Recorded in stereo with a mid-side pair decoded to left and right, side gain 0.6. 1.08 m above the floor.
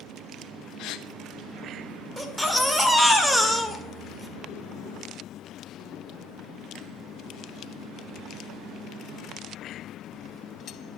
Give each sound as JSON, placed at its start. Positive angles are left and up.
{"t": 0.8, "sound": "a gasp", "azimuth_deg": 65, "distance_m": 0.9}
{"t": 2.2, "sound": "a baby crying", "azimuth_deg": -5, "distance_m": 1.5}